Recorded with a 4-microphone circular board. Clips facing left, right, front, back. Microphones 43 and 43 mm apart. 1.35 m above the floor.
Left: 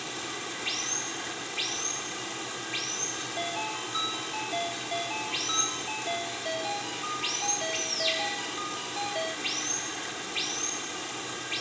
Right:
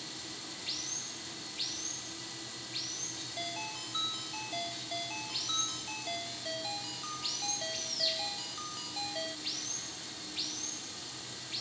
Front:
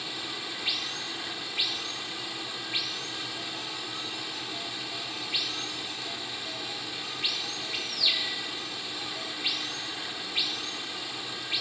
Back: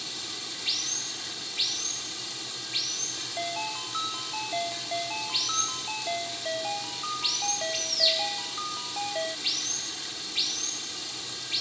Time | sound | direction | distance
0.0 | running water | 70° left | ?
3.2 | a ringtone | 150° left | ?